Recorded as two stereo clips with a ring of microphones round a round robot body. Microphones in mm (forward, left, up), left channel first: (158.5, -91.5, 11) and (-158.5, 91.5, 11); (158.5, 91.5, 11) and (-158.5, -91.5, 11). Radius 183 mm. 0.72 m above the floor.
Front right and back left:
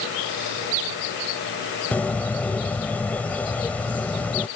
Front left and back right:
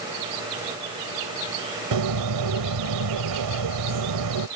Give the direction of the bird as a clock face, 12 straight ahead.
4 o'clock.